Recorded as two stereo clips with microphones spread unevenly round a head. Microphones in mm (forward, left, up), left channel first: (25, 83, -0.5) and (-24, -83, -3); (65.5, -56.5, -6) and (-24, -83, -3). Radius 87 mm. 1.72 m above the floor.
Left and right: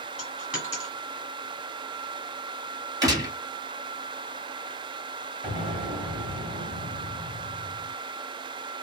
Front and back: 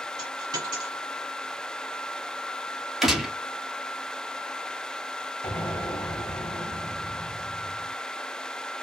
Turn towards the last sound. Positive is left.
turn(degrees=-35)